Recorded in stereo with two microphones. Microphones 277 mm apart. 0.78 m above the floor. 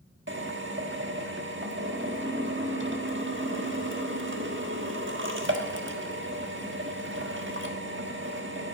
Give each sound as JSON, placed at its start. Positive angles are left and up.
{"t": 0.3, "sound": "a drill", "side_deg": -45, "distance_m": 1.4}